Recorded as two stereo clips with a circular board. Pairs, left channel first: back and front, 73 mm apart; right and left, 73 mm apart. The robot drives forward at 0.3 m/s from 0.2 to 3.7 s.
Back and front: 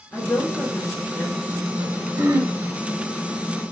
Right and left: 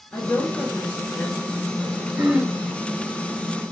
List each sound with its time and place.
0.1 s a woman speaking: 135° right, 1.2 m; by 2.1 s 155° right, 1.5 m
2.2 s throat clearing: 20° left, 0.7 m; by 2.6 s 25° left, 0.6 m